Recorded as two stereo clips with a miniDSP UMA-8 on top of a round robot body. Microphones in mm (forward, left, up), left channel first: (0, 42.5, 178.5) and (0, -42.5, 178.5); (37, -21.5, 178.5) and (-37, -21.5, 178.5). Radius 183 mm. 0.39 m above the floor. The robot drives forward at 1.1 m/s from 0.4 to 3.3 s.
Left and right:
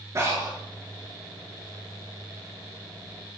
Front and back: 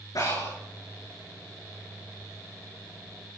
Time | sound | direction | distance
0.1 | breathing | 35° right | 8 m